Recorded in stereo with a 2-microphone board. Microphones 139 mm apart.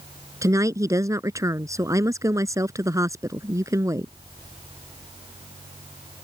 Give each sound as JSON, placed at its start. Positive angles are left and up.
{"t": 0.4, "sound": "a woman speaking", "side_deg": -25}